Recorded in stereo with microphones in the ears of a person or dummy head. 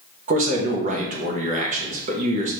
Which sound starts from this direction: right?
A man speaking, at 0.3 s.